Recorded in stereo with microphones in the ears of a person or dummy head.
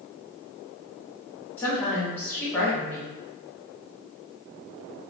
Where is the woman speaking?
10° left (ahead or behind), 0.5 m.